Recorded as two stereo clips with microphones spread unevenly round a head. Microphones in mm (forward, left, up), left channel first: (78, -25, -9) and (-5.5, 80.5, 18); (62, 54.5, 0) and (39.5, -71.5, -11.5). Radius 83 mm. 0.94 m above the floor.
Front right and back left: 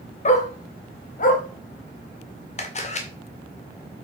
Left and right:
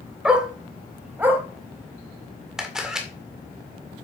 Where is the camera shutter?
15° right, 1.9 m.